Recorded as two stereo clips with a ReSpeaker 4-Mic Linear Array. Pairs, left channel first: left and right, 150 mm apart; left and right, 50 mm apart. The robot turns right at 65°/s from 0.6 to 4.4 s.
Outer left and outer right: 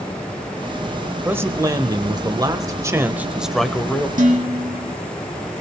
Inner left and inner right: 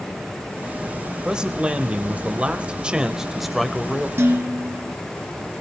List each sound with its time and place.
1.2 s a man speaking: 15° right (ahead or behind), 1.1 m; by 4.1 s 15° left (ahead or behind), 1.1 m
4.2 s dishes clattering: 60° right (ahead or behind), 2.0 m; by 4.9 s 50° right (ahead or behind), 2.0 m